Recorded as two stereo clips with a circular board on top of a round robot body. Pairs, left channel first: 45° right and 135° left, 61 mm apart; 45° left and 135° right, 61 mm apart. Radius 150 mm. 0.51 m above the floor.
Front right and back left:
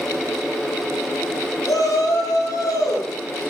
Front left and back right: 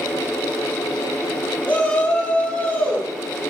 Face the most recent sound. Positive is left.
turn(degrees=-20)